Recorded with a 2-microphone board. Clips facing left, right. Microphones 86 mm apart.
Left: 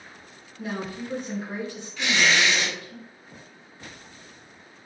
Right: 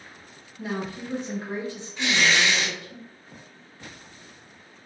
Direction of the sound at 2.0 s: 25° right (ahead or behind).